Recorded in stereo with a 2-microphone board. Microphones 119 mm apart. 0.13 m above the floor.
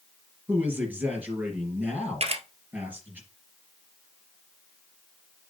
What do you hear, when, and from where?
0.5 s a man speaking: 15° right (ahead or behind), 3 m
2.2 s a camera shutter: 60° right (ahead or behind), 1.5 m